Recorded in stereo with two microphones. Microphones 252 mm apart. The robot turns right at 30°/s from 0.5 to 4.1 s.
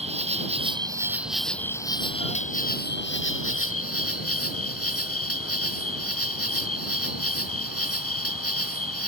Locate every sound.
0.0 s an insect: 25° right; by 9.1 s 80° left